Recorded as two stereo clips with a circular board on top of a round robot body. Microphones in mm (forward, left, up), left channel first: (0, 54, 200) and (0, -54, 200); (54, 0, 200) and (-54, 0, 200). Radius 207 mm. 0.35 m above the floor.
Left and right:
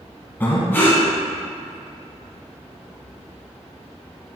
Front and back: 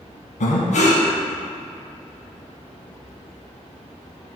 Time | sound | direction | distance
0.4 | breathing | 15° left | 1.0 m